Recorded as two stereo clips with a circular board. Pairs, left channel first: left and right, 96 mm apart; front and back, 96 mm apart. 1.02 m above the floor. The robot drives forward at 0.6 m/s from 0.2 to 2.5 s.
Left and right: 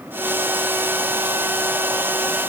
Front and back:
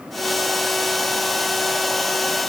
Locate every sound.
Only background noise.